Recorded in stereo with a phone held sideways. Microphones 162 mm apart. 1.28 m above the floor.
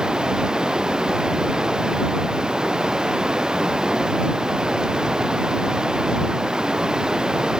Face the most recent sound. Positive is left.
turn(degrees=-5)  # may be behind; listen again after turning